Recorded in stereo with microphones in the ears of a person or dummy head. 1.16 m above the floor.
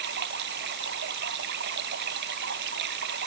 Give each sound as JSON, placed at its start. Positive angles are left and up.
{"t": 0.0, "sound": "running water", "side_deg": -65}